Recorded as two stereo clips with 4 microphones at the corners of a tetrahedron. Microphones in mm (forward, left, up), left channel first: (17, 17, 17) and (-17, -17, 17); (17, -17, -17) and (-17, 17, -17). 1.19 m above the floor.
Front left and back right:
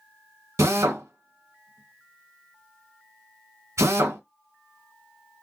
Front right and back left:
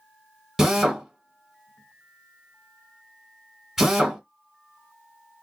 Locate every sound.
0.6 s a drill: 140° right, 1.3 m